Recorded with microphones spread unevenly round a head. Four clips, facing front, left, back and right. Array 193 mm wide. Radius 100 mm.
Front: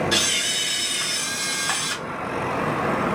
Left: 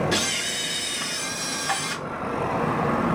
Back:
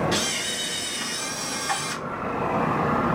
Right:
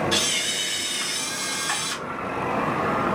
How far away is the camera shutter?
About 1.9 m.